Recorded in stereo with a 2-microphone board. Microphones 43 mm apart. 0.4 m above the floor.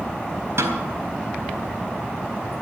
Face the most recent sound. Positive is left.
turn(degrees=-75)  # may be behind; listen again after turning